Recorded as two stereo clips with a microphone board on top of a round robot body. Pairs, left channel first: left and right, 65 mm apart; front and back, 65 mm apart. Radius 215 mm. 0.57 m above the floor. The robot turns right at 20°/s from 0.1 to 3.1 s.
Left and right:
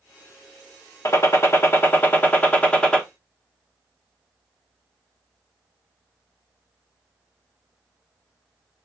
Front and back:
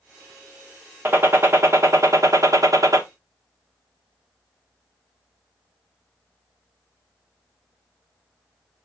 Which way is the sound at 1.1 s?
125° left.